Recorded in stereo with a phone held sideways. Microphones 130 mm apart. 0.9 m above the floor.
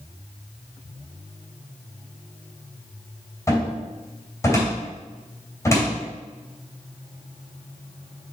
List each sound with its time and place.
3.5 s a cupboard door: 25° left (ahead or behind), 2.5 m